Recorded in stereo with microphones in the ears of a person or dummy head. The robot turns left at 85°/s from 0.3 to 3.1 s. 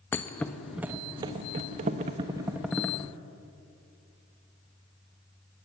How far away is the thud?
About 1.1 m.